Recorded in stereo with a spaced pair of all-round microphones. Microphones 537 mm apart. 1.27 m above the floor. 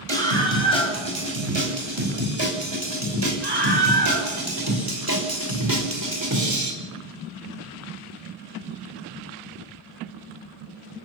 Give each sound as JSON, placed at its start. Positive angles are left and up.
{"t": 0.1, "sound": "a scream", "side_deg": -60, "distance_m": 8.0}